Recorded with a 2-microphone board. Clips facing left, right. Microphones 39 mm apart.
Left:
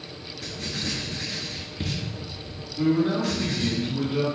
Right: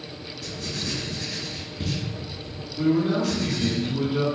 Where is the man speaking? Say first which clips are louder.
Right 1 dB; 5° left (ahead or behind), 1.9 m.